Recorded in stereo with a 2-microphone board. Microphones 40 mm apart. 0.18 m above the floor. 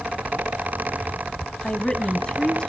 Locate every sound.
1.6 s a woman speaking: 20° left (ahead or behind), 1.5 m